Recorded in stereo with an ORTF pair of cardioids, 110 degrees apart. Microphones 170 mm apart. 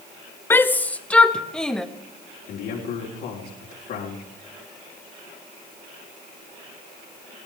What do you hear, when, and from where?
0.5 s a shout: 15° left, 0.9 m; by 1.9 s 5° left, 1.7 m
2.5 s a man speaking: 70° left, 4 m